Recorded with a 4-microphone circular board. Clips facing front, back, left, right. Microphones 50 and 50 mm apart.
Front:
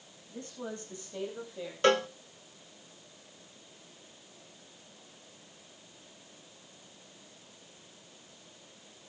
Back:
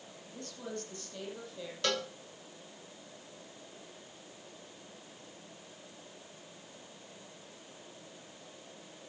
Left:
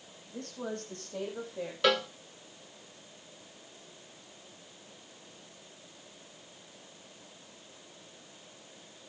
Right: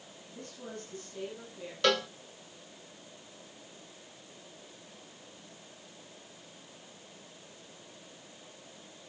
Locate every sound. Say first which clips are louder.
0.3 s a woman speaking: front 2 dB, left 6 dB; 65° left, 9 m; by 1.7 s 75° left, 8.5 m
1.8 s a cowbell: front 9 dB, left 1 dB; 10° left, 0.7 m